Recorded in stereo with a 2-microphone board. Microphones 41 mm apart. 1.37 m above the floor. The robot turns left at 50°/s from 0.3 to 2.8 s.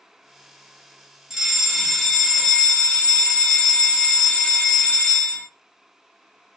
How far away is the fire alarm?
About 0.8 m.